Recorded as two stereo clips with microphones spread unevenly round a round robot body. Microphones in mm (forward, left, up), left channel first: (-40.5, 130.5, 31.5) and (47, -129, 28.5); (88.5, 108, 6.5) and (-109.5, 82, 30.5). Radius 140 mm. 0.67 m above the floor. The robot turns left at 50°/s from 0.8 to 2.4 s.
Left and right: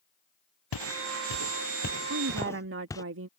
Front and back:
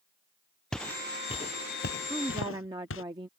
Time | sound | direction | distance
0.7 | footsteps | 95° left | ?
2.1 | a woman speaking | 85° right | ?